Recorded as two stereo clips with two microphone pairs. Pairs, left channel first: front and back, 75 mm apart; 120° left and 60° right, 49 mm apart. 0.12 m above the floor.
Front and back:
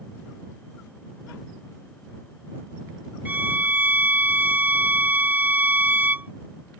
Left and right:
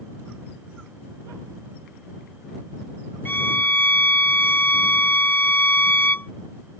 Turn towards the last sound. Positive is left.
turn(degrees=130)